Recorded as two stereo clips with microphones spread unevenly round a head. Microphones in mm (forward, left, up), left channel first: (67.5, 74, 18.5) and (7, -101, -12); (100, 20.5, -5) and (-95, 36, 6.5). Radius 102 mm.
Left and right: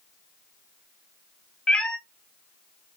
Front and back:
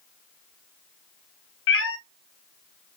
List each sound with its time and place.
1.7 s a cat meowing: 5° right, 0.6 m